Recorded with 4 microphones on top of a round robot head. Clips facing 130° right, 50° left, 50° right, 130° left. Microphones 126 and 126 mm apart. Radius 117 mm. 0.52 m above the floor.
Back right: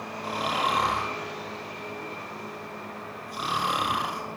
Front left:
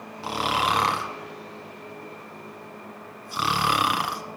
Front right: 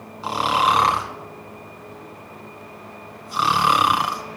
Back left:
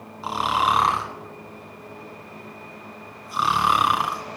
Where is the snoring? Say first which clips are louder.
Front left 3 dB, front right 3 dB; 45° left, 1.1 m.